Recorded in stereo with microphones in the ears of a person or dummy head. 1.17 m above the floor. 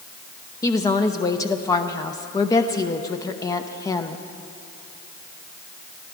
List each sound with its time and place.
0.6 s a woman speaking: 15° left (ahead or behind), 0.7 m